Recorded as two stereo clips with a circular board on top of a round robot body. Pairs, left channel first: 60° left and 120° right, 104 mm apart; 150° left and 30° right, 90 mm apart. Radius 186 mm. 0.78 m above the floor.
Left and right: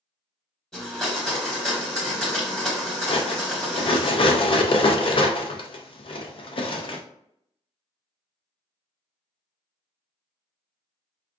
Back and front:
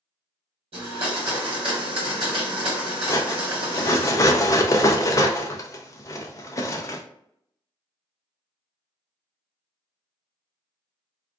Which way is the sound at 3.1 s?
95° left.